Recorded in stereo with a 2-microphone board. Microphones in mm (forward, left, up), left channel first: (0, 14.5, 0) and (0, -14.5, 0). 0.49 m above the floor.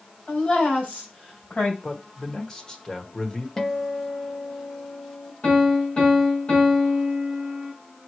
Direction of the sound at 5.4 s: 50° left (ahead or behind).